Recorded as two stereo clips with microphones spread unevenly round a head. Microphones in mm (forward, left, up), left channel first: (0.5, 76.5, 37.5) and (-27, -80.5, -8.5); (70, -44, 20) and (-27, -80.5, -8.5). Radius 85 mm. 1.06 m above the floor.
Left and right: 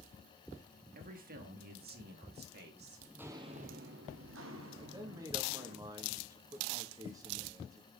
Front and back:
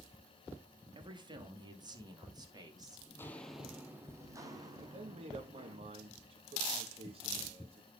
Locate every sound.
0.9 s a man speaking: 125° right, 2 m; by 3.0 s 110° right, 3.5 m
3.1 s footsteps: 5° left, 1.3 m; by 5.8 s 110° right, 4 m
4.8 s a man speaking: 160° right, 1.8 m